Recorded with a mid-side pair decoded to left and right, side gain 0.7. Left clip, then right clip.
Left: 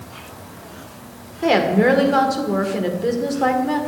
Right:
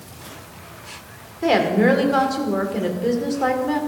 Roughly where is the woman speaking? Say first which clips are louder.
Left 1 dB; ahead.